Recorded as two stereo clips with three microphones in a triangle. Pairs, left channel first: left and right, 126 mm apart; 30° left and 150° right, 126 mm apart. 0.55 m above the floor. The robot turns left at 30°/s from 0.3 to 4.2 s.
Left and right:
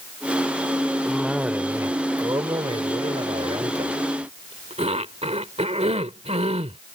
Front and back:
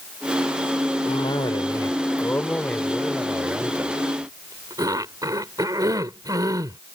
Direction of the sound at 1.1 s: Straight ahead.